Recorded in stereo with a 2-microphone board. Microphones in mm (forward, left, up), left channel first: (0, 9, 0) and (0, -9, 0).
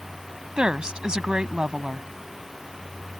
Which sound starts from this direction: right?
A woman speaking, at 0.6 s.